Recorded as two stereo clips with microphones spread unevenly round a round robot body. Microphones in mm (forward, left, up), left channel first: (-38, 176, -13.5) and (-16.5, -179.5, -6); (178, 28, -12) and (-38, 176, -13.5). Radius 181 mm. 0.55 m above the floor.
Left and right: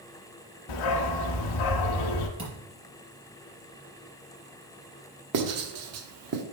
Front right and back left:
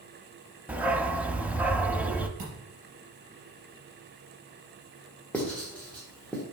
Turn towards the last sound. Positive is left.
turn(degrees=-120)